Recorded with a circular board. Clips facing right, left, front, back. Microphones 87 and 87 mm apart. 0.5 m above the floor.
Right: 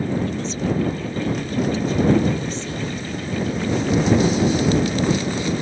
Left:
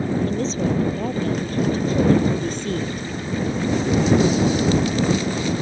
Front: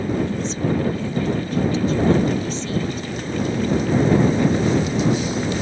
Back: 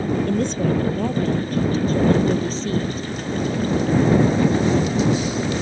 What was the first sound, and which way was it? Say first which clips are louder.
A woman speaking: left 2 dB, back 2 dB; 145° left.